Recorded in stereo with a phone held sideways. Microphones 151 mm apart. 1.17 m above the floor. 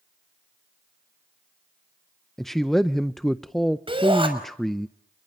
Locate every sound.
2.4 s a man speaking: centre (ahead or behind), 0.5 m
3.9 s a shout: 35° right (ahead or behind), 6 m